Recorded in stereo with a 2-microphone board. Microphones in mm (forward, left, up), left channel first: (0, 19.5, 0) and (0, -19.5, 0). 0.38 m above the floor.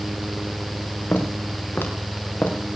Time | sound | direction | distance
1.1 | footsteps | 80° left | 5 m